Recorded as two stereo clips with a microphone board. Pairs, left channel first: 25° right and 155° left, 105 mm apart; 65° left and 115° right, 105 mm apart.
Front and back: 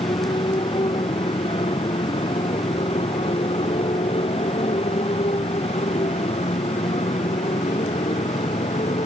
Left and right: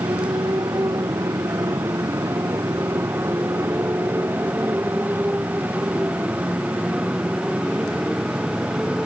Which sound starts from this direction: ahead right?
A motorcycle, at 0.0 s.